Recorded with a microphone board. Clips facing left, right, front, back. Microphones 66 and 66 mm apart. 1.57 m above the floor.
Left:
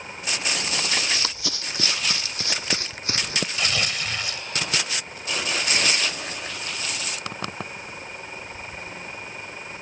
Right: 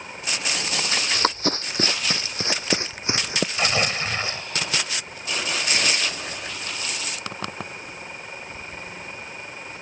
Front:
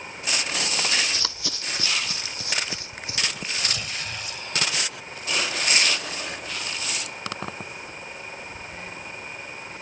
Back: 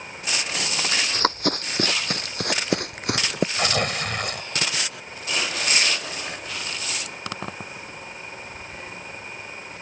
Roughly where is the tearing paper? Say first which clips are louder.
Right 5 dB, back 8 dB; behind right.